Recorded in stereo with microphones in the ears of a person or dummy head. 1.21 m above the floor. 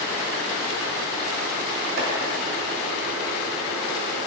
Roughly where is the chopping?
Right.